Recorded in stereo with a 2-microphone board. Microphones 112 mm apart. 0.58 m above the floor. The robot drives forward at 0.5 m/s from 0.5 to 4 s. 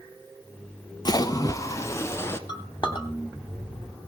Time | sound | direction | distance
1.1 | a splash | 35° left (ahead or behind) | 0.8 m
2.5 | a clink | 40° left (ahead or behind) | 2 m